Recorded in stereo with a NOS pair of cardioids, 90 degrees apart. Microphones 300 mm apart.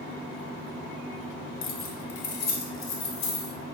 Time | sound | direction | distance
1.6 | keys jangling | 40° left | 1.7 m